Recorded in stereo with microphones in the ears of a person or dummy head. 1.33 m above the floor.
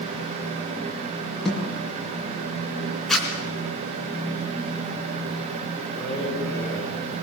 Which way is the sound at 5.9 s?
15° left (ahead or behind).